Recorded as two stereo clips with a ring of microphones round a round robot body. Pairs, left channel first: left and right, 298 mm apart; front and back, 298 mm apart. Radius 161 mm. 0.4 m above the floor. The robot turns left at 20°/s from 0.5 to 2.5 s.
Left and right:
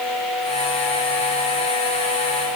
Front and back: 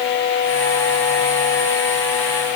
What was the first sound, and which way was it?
Only background noise.